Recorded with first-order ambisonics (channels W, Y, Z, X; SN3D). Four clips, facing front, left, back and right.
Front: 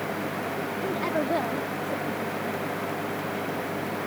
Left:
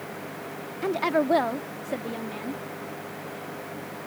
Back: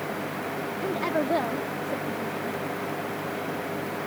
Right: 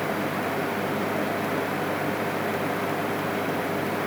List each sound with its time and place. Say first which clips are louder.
0.8 s a woman speaking: left 2 dB, back 1 dB; 95° left